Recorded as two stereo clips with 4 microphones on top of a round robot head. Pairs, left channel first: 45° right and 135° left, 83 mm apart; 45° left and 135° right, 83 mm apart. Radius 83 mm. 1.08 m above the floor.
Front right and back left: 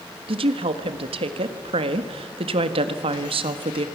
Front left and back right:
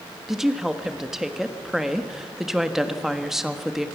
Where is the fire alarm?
I don't hear a fire alarm.